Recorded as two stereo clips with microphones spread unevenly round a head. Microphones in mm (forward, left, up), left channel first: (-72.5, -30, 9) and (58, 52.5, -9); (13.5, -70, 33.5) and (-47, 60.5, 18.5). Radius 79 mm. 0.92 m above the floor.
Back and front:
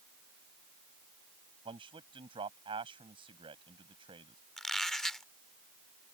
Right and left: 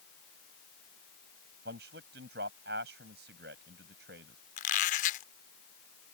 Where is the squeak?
65° right.